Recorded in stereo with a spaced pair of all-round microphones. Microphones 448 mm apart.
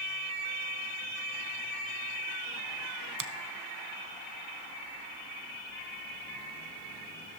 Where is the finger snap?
45° right (ahead or behind), 0.6 m.